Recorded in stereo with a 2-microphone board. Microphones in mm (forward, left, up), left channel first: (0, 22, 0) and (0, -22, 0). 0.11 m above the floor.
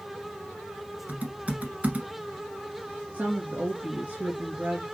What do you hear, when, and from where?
1.1 s typing on a keyboard: 30° right (ahead or behind), 1.4 m
3.1 s a woman speaking: 35° right (ahead or behind), 1.8 m